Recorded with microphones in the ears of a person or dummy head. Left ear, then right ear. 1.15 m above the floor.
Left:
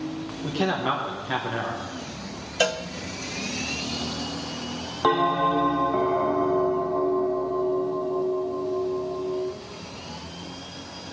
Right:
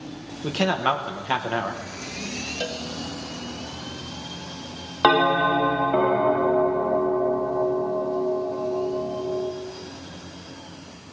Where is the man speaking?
45° right (ahead or behind), 1.2 m.